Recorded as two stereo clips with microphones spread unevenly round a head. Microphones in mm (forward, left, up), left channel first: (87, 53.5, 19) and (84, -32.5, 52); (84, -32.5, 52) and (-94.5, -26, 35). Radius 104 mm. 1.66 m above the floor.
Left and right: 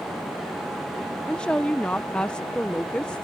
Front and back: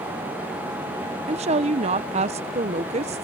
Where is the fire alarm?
I don't hear a fire alarm.